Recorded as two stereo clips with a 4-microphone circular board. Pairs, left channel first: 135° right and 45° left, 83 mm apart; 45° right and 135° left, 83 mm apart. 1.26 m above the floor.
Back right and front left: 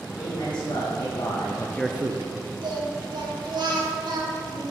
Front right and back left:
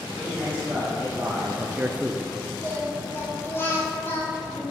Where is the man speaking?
155° right, 2.5 m; by 2.3 s 45° left, 0.7 m.